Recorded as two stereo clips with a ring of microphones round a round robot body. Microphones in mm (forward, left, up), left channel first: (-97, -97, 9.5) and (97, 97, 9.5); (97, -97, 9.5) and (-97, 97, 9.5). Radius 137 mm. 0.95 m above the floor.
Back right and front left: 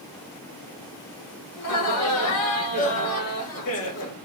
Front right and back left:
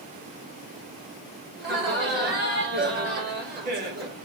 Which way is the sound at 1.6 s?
170° right.